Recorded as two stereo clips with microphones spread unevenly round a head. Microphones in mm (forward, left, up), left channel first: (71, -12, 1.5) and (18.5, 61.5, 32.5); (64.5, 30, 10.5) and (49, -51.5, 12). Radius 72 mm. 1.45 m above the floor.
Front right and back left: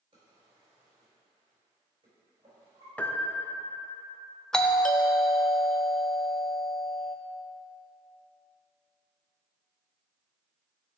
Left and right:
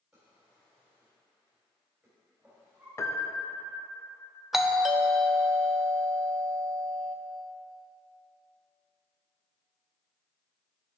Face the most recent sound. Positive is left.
turn(degrees=-15)